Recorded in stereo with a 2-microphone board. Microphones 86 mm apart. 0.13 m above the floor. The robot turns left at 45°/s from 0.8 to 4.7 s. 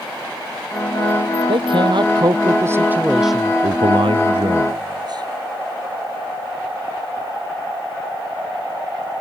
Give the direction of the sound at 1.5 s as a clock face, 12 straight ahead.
3 o'clock.